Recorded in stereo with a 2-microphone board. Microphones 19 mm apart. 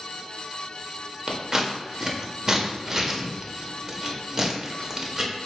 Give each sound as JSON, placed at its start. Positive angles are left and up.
{"t": 1.3, "sound": "scissors", "side_deg": -25, "distance_m": 0.7}